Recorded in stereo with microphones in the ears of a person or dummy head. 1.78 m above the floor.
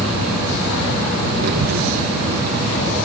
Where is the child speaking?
60° right (ahead or behind), 1.3 m.